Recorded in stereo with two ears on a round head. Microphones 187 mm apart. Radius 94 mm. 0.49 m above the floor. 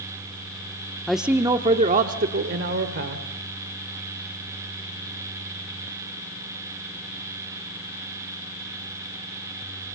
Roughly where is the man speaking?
Centre.